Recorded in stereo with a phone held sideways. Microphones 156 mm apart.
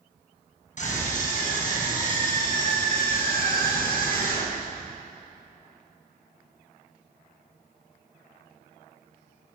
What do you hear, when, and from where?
0.8 s a scream: 50° left (ahead or behind), 7 m; by 4.7 s 65° left (ahead or behind), 9 m